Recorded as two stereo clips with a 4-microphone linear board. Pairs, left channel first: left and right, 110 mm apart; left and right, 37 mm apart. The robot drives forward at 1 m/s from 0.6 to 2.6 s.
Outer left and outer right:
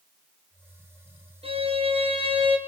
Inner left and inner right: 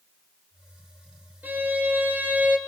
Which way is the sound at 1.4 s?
60° right (ahead or behind).